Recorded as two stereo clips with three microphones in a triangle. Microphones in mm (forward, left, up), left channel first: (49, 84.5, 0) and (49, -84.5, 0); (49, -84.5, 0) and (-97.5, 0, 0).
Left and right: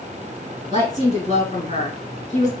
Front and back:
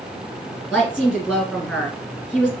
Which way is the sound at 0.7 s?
65° left.